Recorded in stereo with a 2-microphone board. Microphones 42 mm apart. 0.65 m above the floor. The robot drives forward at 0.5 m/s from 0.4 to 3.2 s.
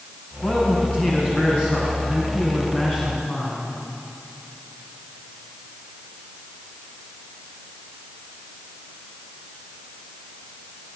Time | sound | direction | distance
0.4 | a man speaking | 40° left (ahead or behind) | 4 m